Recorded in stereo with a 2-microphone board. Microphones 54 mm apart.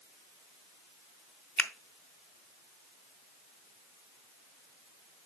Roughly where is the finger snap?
Left.